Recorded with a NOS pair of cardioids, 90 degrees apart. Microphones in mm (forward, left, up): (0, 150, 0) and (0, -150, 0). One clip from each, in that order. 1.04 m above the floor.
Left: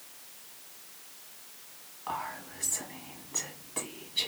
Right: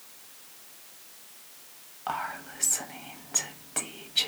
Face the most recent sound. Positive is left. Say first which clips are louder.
# right 4 dB
turn(degrees=-45)